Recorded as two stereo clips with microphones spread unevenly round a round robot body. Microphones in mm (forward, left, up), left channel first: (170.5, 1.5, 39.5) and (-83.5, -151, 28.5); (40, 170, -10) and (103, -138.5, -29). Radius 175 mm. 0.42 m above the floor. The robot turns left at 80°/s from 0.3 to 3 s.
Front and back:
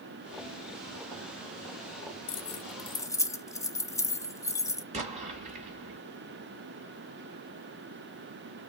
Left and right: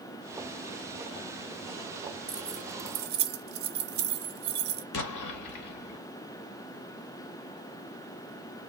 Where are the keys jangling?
10° left, 0.5 m; by 4.8 s 45° right, 0.5 m.